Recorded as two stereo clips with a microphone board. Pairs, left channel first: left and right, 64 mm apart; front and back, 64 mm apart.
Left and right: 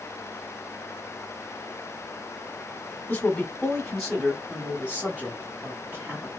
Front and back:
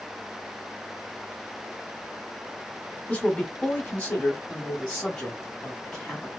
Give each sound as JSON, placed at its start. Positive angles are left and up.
{"t": 3.1, "sound": "a man speaking", "azimuth_deg": 50, "distance_m": 1.5}